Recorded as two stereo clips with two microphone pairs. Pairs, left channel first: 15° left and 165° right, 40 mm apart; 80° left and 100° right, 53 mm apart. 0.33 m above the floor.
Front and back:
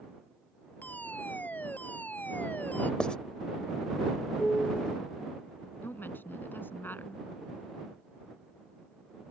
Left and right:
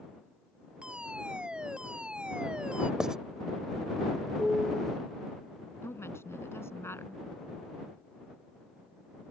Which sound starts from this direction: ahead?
A piano, at 4.4 s.